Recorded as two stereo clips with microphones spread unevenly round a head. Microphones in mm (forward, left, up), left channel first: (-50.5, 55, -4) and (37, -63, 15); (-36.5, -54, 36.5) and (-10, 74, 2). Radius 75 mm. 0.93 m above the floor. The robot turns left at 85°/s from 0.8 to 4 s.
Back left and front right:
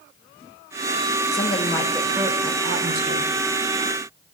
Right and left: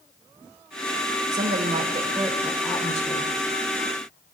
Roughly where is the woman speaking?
Left.